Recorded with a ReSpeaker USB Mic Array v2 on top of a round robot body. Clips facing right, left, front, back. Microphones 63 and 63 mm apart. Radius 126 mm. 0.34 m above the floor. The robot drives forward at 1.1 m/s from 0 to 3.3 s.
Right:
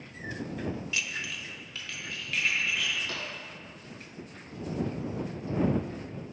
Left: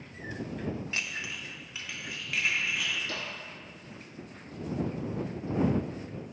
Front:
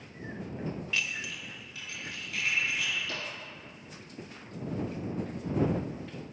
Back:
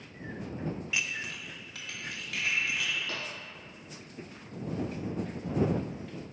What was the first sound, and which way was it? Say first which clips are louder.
Dishes clattering: right 1 dB, even; 110° left.